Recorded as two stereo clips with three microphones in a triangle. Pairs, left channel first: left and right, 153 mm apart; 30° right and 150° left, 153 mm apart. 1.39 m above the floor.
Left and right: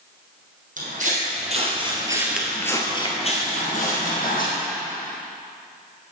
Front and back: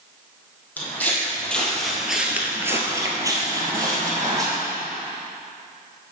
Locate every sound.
0.8 s footsteps: 105° right, 3 m; by 4.5 s 85° left, 3.5 m